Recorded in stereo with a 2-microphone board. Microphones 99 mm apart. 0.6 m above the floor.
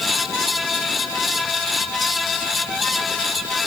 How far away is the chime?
No chime in this recording.